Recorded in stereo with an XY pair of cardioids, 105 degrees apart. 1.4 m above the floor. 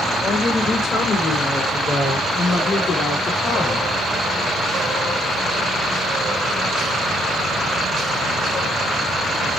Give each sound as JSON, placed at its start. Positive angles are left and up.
{"t": 0.2, "sound": "a woman speaking", "azimuth_deg": 40, "distance_m": 5.5}